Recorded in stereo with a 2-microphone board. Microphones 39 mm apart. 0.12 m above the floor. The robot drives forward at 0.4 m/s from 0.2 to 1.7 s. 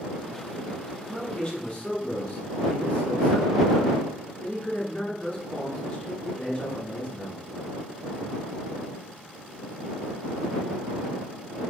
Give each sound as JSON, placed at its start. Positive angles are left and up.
{"t": 1.0, "sound": "a man speaking", "side_deg": 30, "distance_m": 2.0}